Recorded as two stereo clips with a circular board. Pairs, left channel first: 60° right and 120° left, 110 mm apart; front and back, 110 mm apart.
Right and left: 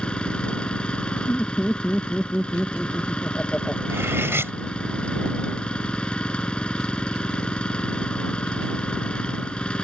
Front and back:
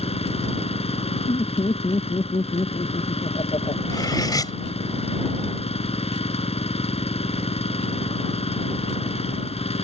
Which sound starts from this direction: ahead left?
Cutlery clinking, at 3.9 s.